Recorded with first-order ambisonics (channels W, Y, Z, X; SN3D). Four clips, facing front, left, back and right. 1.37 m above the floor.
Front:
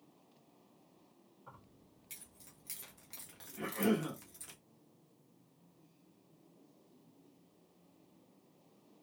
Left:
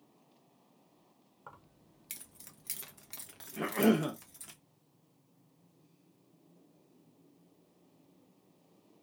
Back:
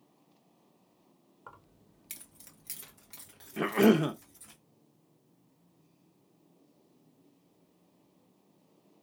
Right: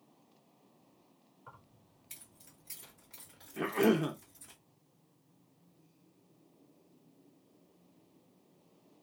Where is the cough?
Straight behind, 0.5 m.